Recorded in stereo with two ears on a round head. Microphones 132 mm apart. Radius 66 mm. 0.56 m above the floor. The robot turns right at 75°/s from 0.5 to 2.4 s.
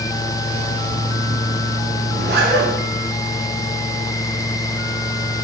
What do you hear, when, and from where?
2.1 s a zipper: 65° right (ahead or behind), 1.3 m; by 2.7 s 85° right, 1.3 m